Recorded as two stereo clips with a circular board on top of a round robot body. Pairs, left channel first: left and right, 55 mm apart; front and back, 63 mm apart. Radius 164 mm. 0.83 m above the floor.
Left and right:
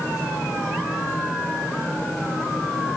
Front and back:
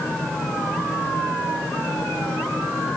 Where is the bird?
No bird in this recording.